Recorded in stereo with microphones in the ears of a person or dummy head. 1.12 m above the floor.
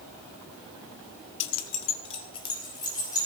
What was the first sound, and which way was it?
Keys jangling, 70° left (ahead or behind).